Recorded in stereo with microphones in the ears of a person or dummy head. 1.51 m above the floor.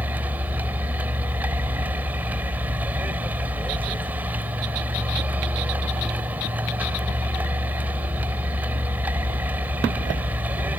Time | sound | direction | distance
0.0 | a vehicle | 15° right (ahead or behind) | ?